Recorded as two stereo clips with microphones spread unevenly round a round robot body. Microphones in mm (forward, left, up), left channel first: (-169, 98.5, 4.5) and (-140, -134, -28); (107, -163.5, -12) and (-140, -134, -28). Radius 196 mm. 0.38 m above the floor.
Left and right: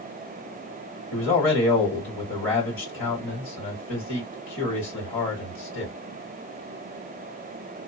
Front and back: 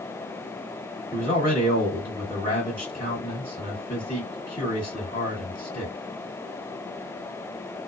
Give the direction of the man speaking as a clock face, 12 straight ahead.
9 o'clock.